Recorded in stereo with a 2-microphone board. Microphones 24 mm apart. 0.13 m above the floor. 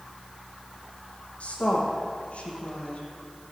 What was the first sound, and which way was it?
A woman speaking, 60° left (ahead or behind).